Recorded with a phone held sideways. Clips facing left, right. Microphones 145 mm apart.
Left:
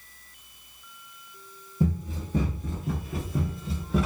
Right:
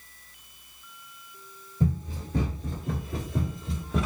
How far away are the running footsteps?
About 1.9 m.